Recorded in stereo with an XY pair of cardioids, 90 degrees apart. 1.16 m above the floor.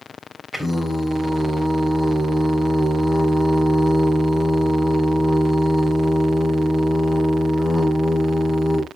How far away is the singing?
About 3.5 m.